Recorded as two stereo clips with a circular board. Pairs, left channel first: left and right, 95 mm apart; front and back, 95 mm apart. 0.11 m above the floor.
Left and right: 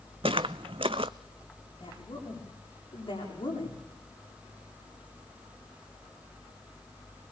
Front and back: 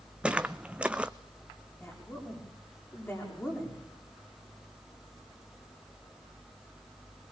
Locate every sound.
0.2 s footsteps: 105° right, 0.6 m
1.8 s a woman speaking: 65° left, 7.5 m